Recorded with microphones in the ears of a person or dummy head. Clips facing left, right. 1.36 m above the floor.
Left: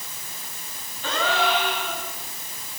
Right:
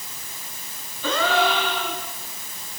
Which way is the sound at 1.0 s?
75° right (ahead or behind).